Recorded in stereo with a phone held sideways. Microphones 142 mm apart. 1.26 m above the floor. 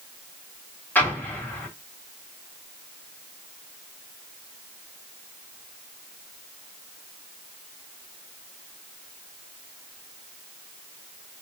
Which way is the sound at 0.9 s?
15° left (ahead or behind).